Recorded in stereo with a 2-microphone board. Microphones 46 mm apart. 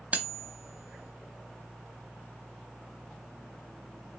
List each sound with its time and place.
0.1 s cutlery clinking: 35° right (ahead or behind), 0.7 m